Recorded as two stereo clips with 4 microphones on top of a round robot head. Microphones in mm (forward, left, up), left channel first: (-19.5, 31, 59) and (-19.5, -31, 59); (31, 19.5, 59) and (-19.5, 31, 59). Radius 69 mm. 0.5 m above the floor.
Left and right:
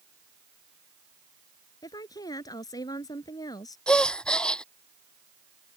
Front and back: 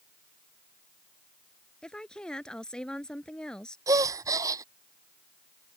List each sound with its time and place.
1.8 s a woman speaking: 65° left
3.9 s a gasp: 165° left